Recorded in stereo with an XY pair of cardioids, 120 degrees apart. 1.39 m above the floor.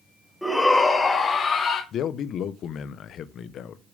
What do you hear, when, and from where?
0.4 s a shout: 5° left, 1.6 m; by 1.8 s 45° left, 2.5 m
1.9 s a man speaking: 60° left, 0.9 m